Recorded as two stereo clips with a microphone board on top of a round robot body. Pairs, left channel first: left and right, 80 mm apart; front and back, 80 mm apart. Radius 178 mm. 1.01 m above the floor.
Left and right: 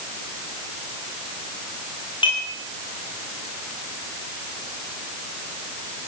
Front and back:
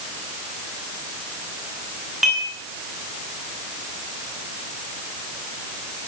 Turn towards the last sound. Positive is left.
turn(degrees=95)